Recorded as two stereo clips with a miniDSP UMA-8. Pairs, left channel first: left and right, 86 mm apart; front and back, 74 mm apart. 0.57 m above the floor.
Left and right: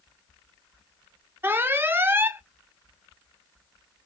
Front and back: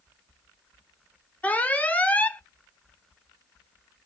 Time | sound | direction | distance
1.4 | an alarm | 50° right | 0.5 m